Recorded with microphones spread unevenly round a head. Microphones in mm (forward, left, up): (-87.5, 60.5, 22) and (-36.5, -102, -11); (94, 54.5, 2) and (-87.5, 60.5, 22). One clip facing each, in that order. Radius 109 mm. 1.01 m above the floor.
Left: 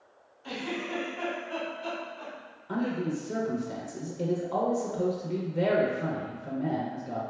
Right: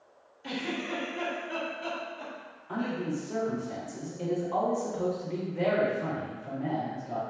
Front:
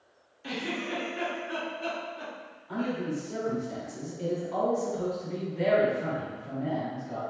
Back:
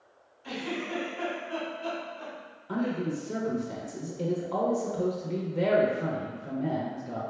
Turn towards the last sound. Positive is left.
turn(degrees=155)